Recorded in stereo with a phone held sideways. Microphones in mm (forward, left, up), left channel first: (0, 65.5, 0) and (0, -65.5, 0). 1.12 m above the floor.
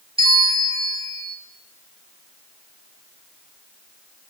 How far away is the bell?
About 1.5 m.